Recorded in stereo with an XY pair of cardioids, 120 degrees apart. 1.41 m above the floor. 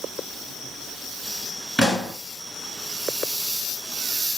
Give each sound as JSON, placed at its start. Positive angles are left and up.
{"t": 1.8, "sound": "a pop", "azimuth_deg": 15, "distance_m": 1.9}